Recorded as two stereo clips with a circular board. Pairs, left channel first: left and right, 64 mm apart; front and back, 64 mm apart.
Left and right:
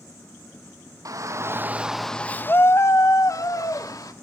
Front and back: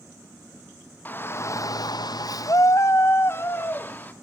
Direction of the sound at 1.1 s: 65° right.